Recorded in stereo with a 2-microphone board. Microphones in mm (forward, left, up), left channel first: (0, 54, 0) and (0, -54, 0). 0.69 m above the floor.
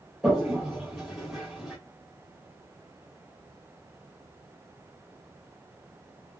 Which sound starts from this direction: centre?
A toilet flushing, at 0.2 s.